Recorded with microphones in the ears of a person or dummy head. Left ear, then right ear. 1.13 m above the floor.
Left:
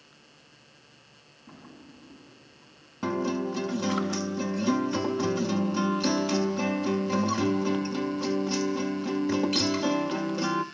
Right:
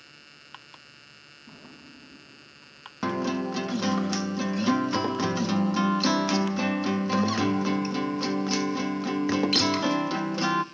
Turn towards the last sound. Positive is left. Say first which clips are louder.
# right 1 dB
turn(degrees=-20)  # may be behind; listen again after turning